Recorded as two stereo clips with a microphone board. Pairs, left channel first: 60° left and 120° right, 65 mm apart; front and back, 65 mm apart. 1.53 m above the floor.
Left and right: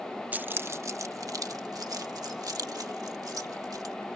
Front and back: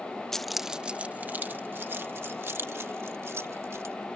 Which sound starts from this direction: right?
Keys jangling, at 0.3 s.